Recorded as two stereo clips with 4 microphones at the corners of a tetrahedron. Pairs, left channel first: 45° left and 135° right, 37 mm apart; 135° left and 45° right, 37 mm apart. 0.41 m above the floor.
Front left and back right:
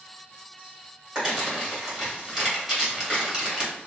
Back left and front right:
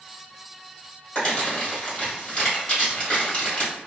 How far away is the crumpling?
About 1.6 m.